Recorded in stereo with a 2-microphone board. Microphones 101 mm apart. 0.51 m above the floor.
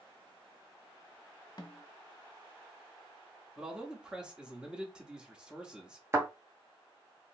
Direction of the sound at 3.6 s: 10° right (ahead or behind).